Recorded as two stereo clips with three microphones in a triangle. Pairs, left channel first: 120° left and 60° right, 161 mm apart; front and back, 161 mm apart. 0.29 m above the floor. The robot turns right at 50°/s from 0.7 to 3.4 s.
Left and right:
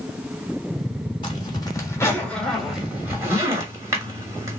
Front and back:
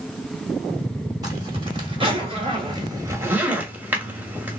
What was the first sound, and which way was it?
A zipper, 140° left.